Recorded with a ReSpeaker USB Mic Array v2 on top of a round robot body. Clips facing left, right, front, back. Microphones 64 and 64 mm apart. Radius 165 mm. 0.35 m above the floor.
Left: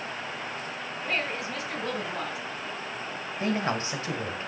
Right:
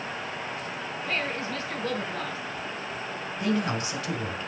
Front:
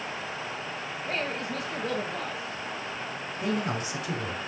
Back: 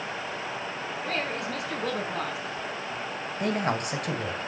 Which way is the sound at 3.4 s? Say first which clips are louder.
Right 1 dB, back 2 dB; 150° left.